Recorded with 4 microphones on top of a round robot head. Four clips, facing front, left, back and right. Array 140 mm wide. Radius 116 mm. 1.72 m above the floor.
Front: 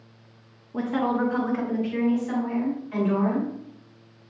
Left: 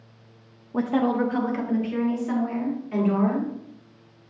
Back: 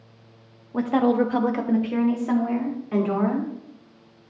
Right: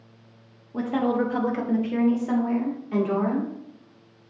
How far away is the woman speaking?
About 0.5 m.